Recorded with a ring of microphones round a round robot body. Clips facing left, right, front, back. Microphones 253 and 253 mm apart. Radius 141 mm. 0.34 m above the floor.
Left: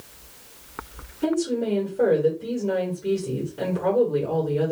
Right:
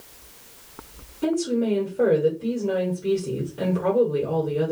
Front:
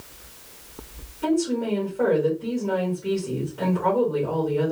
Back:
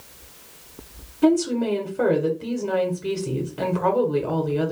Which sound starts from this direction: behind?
A woman speaking, at 1.2 s.